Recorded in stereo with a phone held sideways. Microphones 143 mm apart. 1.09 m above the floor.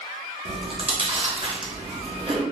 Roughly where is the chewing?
Right.